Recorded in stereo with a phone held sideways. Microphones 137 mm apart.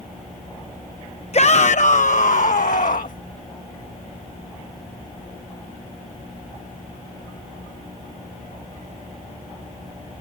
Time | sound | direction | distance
1.3 | a shout | 50° left (ahead or behind) | ?